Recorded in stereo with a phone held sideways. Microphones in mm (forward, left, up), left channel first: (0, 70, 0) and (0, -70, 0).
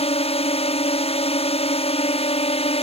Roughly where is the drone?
Left.